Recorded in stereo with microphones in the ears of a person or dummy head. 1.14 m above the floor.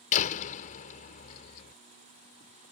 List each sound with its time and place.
0.1 s a door slam: 45° left (ahead or behind)